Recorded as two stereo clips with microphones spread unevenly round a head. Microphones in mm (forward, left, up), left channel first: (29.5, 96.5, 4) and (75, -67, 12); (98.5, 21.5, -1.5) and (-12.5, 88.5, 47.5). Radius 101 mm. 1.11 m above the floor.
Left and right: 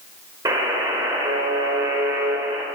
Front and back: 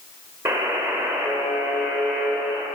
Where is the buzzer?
145° right, 1.4 m.